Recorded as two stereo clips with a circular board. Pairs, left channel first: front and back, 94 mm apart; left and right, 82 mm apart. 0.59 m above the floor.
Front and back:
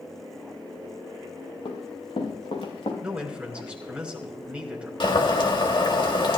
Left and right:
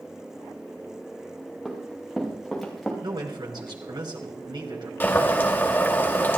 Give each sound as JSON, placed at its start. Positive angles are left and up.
{"t": 1.6, "sound": "running footsteps", "azimuth_deg": -5, "distance_m": 4.0}
{"t": 3.0, "sound": "a man speaking", "azimuth_deg": -100, "distance_m": 3.5}
{"t": 5.0, "sound": "boiling", "azimuth_deg": 25, "distance_m": 2.0}